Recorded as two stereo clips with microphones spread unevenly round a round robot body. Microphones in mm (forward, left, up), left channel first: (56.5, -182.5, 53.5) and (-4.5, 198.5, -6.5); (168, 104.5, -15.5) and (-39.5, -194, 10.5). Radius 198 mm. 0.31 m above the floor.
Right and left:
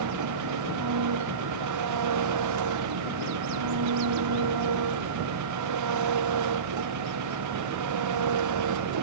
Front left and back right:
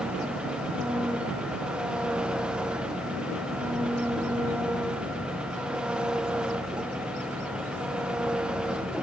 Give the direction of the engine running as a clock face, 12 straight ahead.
7 o'clock.